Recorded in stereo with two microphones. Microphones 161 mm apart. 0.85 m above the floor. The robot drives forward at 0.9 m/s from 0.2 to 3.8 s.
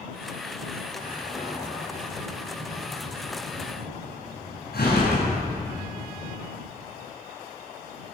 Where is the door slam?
60° left (ahead or behind), 7.5 m; by 5.7 s 80° left, 6.5 m.